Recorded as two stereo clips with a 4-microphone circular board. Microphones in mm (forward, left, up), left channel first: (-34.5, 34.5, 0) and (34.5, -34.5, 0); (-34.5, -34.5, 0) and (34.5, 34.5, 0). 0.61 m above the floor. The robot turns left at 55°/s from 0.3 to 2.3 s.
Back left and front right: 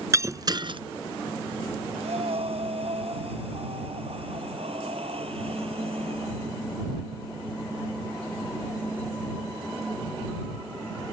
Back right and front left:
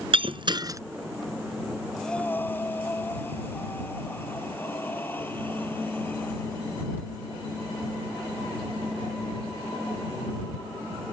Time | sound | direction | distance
0.1 | breaking glass | 15° left | ?
1.9 | breathing | 45° right | ?